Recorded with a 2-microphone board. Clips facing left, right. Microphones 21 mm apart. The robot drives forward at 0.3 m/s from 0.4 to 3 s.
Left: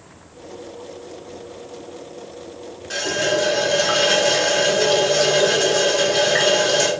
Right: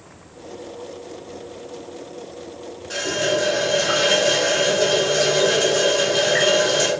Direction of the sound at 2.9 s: 10° left (ahead or behind).